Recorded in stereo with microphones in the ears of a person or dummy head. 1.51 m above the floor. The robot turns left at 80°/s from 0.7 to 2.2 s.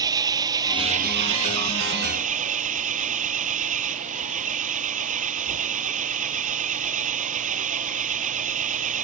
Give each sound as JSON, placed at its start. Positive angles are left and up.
{"t": 0.0, "sound": "an engine running", "azimuth_deg": -20}